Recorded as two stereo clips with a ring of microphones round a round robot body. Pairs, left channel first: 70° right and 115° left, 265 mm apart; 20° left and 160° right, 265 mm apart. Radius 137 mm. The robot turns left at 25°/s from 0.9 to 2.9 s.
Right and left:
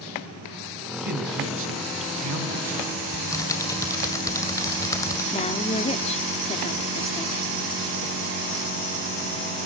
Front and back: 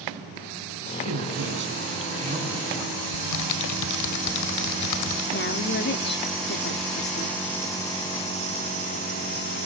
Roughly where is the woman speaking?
Ahead.